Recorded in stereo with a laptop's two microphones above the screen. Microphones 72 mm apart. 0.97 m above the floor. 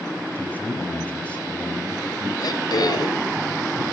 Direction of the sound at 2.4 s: 70° left (ahead or behind).